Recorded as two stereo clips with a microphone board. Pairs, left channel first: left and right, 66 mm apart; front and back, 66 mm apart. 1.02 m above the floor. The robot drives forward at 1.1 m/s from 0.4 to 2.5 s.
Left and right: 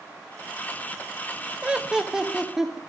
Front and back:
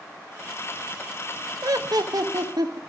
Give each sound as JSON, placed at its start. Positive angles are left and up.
{"t": 1.6, "sound": "laughter", "azimuth_deg": -160, "distance_m": 0.7}